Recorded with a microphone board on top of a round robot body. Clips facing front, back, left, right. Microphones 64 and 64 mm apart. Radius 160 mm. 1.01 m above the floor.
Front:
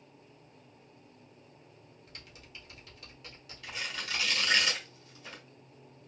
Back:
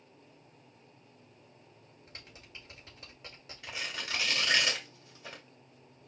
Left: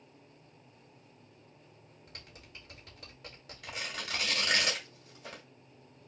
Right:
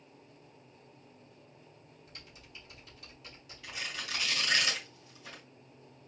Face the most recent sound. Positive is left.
turn(degrees=115)